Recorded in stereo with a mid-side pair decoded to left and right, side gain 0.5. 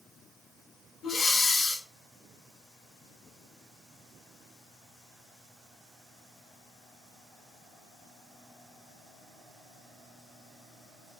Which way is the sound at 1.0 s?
50° left.